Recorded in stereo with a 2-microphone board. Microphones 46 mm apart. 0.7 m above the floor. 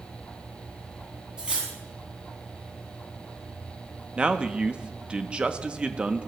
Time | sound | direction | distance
1.4 | cutlery clinking | 20° right (ahead or behind) | 3.5 m
4.2 | a man speaking | 25° right (ahead or behind) | 0.7 m